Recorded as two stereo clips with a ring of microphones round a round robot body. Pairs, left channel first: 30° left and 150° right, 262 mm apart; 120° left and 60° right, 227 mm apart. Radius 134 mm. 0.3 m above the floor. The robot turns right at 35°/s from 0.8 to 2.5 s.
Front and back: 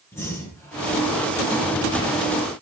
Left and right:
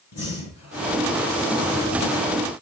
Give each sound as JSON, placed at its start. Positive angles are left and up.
{"t": 0.1, "sound": "breathing", "azimuth_deg": 110, "distance_m": 4.0}